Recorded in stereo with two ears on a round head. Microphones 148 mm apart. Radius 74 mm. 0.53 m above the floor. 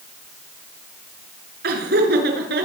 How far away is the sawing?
I don't hear sawing.